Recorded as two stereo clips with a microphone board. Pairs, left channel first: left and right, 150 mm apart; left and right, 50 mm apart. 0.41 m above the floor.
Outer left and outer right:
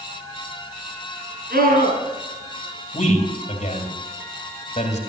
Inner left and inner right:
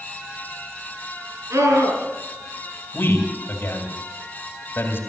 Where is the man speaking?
50° left (ahead or behind), 3 m.